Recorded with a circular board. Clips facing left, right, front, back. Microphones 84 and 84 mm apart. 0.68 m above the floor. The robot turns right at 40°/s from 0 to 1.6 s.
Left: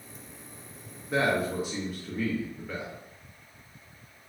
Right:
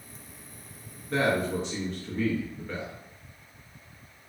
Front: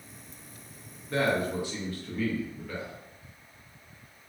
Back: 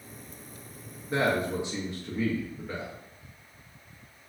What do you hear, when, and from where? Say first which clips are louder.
1.1 s a man speaking: even, even; 145° left, 0.5 m; by 2.9 s 165° left, 0.5 m